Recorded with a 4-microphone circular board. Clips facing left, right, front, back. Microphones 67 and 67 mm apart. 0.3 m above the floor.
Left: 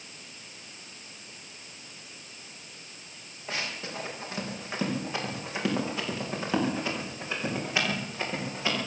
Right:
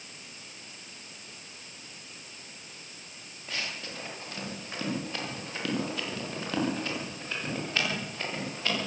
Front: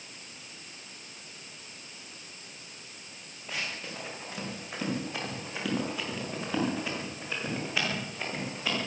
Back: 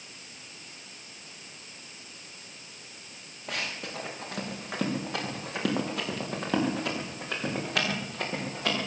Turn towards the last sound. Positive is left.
turn(degrees=165)